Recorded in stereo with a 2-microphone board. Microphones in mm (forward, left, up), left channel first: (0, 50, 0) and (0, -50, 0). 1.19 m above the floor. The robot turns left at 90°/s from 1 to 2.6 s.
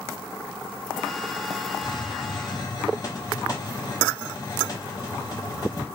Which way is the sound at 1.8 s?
130° left.